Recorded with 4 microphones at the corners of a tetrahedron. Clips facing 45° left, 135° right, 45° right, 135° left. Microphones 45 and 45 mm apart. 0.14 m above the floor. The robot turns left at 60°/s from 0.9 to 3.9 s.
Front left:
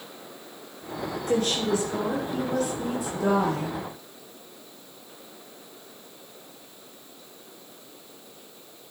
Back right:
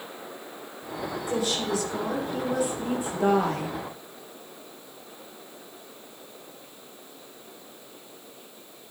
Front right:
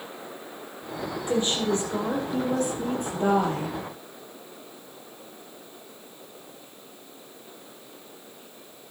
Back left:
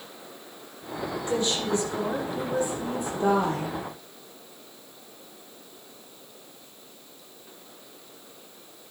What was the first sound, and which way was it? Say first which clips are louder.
A woman speaking: front left 3 dB, front right 2 dB; 25° left.